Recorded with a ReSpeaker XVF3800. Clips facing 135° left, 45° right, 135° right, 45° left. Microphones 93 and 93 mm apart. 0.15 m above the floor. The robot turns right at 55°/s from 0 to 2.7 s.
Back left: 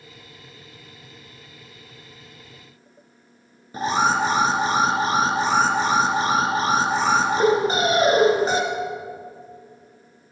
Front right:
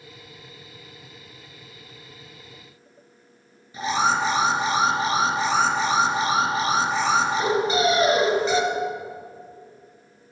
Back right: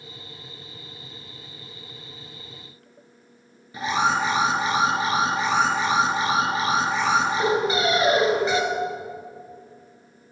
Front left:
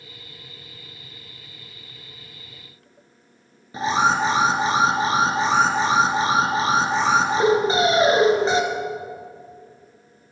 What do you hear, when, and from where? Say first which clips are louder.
3.7 s an alarm: back left 2 dB, front left 3 dB; 100° left, 1.6 m